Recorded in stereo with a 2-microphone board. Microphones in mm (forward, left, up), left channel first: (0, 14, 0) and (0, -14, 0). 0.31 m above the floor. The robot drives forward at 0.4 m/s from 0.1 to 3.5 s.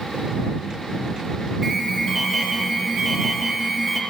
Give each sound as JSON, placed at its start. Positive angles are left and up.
{"t": 1.6, "sound": "an alarm", "side_deg": 10, "distance_m": 8.0}